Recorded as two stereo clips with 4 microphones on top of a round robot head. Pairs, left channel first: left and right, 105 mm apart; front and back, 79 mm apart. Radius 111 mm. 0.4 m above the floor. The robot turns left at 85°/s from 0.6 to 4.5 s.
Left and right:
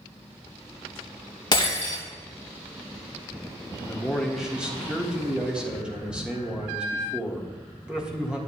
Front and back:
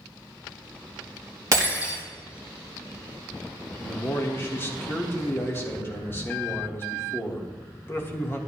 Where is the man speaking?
40° left, 1.6 m; by 8.4 s 20° right, 1.6 m.